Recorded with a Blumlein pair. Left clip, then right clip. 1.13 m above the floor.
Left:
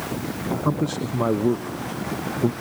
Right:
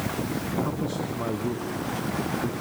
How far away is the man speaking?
About 0.8 m.